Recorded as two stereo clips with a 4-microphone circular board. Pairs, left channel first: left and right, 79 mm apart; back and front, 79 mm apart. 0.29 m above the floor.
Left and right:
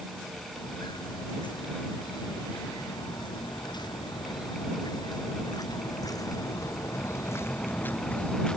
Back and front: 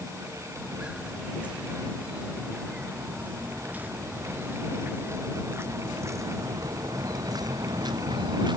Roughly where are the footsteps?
Left.